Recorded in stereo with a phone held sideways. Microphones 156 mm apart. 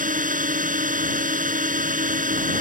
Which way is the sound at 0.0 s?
60° right (ahead or behind).